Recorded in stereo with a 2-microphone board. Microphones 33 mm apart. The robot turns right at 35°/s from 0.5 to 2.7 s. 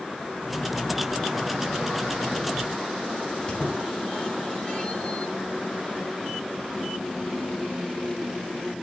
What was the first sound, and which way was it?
A squeak, 25° left (ahead or behind).